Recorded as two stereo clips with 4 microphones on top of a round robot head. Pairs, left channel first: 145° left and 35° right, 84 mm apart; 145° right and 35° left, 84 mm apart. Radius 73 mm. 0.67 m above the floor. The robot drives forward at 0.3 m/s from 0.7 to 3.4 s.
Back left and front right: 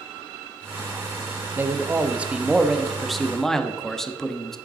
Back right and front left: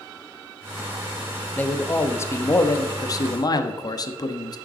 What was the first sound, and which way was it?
A man speaking, 85° right.